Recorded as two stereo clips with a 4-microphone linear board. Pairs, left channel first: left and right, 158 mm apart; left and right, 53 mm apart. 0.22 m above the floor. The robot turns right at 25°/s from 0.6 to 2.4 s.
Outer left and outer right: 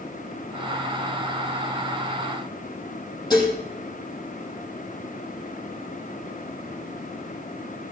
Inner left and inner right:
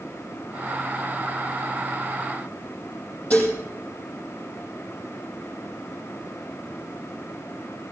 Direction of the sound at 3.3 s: 25° left (ahead or behind).